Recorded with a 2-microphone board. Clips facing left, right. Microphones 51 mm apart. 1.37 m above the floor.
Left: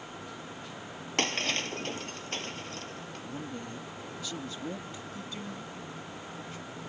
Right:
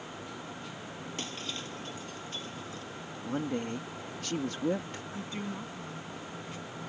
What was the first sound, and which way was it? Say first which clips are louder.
Breaking glass: left 12 dB; 70° left (ahead or behind).